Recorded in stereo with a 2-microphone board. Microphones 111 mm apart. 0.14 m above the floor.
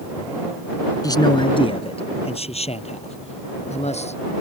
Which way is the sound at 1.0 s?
35° left (ahead or behind).